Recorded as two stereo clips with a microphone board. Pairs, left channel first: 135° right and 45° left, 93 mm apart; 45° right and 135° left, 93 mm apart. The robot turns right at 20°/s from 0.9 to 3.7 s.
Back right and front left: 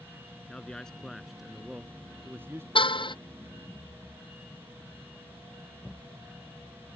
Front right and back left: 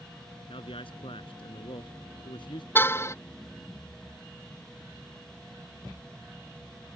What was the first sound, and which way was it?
A man speaking, 55° right.